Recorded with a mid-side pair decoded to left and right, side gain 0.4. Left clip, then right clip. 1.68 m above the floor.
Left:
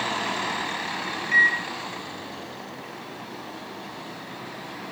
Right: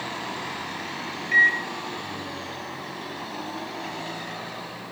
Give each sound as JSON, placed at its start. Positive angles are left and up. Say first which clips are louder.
{"t": 1.3, "sound": "a microwave", "louder": "right 1 dB", "azimuth_deg": 5, "distance_m": 0.9}